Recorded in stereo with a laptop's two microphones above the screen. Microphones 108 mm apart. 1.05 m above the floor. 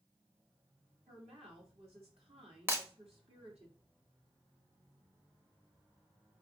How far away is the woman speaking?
About 2.5 m.